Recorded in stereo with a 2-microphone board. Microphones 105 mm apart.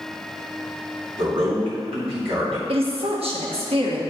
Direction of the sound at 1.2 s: 65° right (ahead or behind).